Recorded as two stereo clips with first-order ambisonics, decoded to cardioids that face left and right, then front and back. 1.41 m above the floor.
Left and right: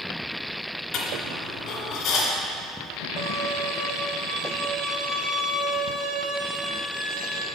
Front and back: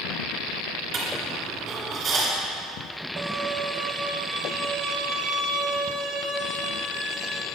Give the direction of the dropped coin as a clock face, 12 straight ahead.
8 o'clock.